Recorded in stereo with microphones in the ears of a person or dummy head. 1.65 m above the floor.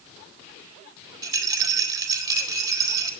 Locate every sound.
1.2 s a rattle: 25° right (ahead or behind), 2.0 m